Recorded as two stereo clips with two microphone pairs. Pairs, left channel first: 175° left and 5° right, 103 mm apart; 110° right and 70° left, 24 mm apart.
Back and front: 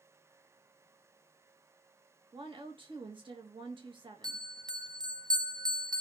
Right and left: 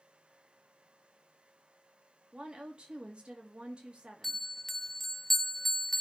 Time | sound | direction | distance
2.3 | a woman speaking | 30° left | 1.7 m
4.2 | a bell | 30° right | 0.9 m